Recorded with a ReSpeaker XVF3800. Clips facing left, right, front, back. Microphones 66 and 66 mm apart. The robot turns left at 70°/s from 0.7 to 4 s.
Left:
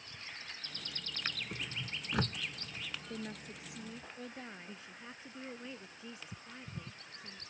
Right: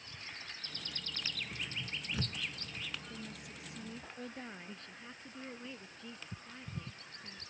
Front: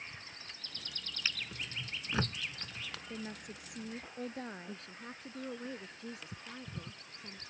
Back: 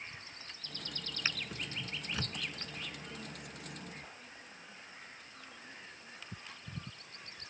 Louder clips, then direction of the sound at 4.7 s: Even, front 5 dB; 10° left.